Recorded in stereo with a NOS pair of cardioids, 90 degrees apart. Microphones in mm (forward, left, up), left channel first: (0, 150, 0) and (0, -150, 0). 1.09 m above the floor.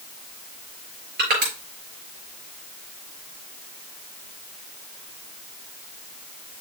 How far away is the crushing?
About 5 m.